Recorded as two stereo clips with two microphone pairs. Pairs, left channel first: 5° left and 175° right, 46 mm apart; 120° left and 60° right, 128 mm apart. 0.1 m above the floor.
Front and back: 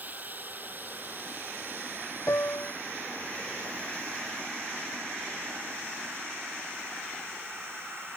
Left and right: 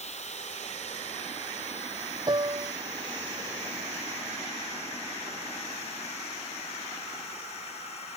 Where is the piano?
10° right.